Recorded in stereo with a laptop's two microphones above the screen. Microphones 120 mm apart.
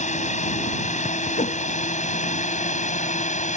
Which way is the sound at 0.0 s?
80° left.